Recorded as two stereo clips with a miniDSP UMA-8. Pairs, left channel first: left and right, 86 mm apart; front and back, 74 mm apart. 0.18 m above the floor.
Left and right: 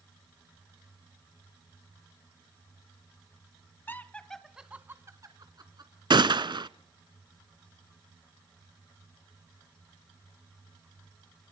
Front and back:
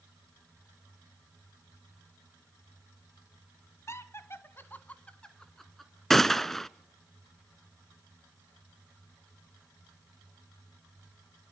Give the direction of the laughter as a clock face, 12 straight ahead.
11 o'clock.